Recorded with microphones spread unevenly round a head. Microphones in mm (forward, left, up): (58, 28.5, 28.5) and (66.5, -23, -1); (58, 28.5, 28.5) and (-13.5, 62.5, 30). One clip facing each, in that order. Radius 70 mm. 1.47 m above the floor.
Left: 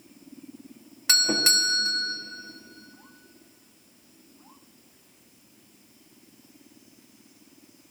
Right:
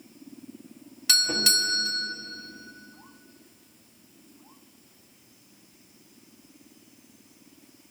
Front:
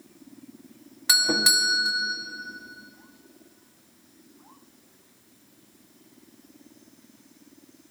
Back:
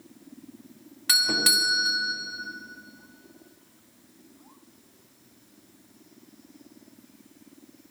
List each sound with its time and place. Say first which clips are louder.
1.1 s a doorbell: left 2 dB, front 2 dB; 40° left, 1.4 m